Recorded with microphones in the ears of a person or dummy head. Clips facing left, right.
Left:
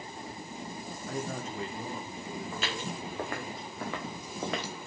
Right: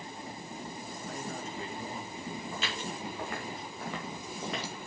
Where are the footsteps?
50° left (ahead or behind), 4 m; by 4.8 s 40° left (ahead or behind), 1.5 m.